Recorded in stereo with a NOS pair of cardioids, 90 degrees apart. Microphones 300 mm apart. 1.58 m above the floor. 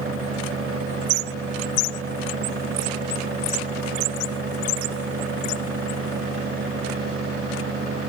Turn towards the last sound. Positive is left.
turn(degrees=-45)